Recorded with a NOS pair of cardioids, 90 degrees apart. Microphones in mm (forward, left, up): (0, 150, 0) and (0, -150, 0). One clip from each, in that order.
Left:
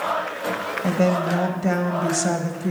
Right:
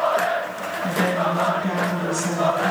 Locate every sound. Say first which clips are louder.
0.8 s a woman speaking: even; 50° left, 1.4 m